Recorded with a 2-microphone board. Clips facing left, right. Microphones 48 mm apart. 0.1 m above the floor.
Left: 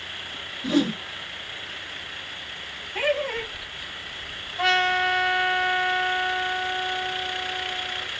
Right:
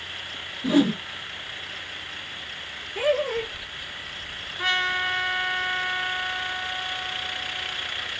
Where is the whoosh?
15° right (ahead or behind), 0.6 m.